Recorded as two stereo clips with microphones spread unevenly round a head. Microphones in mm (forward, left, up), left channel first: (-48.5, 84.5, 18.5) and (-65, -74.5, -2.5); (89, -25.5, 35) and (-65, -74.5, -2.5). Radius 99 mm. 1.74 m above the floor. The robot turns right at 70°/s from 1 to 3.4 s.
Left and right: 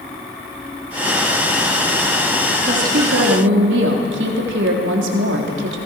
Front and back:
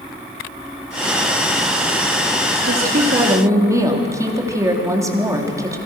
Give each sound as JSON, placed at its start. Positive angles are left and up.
{"t": 2.6, "sound": "a woman speaking", "azimuth_deg": -140, "distance_m": 3.5}